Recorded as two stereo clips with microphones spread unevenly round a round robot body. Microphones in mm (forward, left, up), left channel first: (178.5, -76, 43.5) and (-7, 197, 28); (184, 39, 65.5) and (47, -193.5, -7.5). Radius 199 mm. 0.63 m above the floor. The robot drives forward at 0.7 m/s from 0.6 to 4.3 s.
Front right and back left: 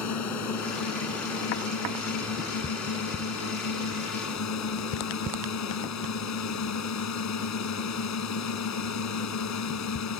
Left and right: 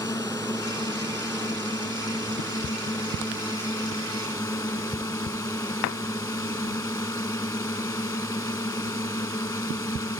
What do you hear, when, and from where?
0.0 s a drone: 20° right